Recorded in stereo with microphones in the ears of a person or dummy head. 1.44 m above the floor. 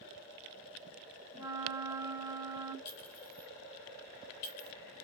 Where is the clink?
60° left (ahead or behind), 3.5 m.